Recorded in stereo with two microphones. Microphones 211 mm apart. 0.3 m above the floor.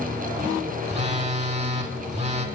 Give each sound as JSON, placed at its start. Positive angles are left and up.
{"t": 0.9, "sound": "a phone buzzing", "side_deg": -30, "distance_m": 0.7}